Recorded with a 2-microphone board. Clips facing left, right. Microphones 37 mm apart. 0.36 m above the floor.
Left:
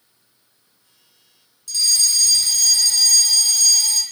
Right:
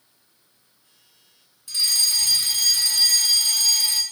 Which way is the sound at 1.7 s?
25° right (ahead or behind).